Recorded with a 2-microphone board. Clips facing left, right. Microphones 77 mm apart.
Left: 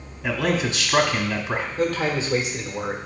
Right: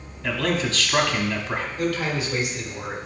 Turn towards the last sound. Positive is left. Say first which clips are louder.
# left 3 dB
turn(degrees=30)  # may be behind; listen again after turning